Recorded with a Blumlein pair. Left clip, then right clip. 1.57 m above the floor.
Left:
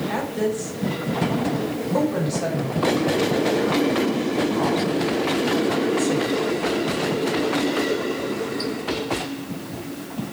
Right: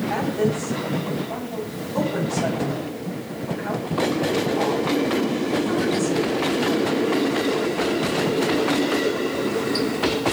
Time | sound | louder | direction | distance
0.1 | a woman speaking | right 3 dB | 60° left | 6 m